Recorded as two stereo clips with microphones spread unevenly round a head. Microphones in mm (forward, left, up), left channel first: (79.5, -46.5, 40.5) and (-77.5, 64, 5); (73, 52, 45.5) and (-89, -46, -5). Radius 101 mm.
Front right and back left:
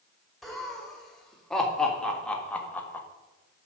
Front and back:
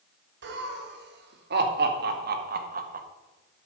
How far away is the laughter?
About 2.5 m.